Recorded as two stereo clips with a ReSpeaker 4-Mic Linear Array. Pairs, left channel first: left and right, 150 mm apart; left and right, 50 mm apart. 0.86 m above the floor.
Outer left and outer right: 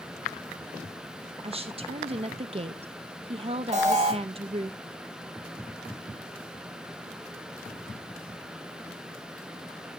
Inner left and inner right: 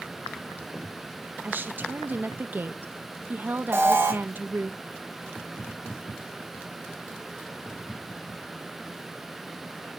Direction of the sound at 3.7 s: 45° right (ahead or behind).